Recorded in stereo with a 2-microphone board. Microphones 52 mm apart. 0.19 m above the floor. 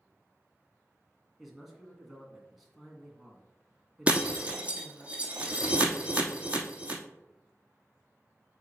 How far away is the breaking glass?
About 1.1 m.